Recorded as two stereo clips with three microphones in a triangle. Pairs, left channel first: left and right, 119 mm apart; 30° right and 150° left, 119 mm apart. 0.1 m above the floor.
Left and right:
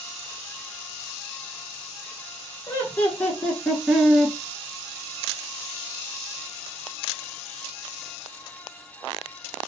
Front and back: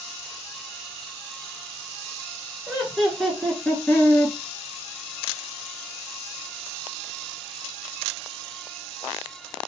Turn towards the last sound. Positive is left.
turn(degrees=-25)